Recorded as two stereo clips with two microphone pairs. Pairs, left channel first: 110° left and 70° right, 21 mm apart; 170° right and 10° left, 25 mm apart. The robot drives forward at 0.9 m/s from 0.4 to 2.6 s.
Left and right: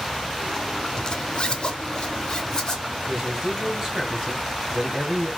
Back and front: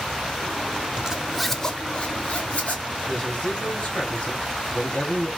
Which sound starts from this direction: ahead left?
A zipper, at 1.0 s.